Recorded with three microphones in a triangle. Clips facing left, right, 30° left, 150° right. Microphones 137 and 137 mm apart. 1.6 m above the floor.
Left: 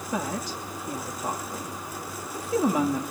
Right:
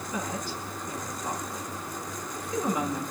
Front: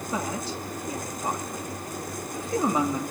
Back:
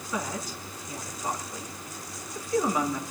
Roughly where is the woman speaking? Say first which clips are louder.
Left 4 dB, front 2 dB; left.